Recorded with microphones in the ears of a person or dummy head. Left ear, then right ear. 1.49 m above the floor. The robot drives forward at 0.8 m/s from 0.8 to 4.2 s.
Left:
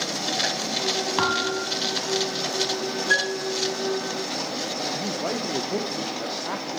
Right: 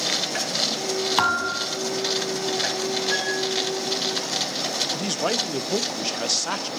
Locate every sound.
1.2 s a thud: 25° right (ahead or behind), 1.7 m; by 1.8 s 20° right (ahead or behind), 2 m
3.1 s a piano: 50° left (ahead or behind), 7.5 m
4.9 s a man speaking: 70° right (ahead or behind), 1.0 m